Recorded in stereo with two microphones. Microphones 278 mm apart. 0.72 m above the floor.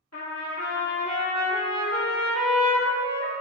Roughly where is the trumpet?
Left.